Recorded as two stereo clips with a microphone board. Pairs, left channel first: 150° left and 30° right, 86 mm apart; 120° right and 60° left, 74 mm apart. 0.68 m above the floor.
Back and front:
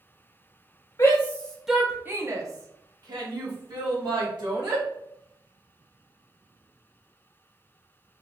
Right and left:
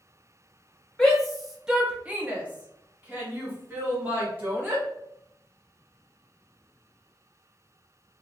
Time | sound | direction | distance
1.0 | a shout | 165° left | 0.8 m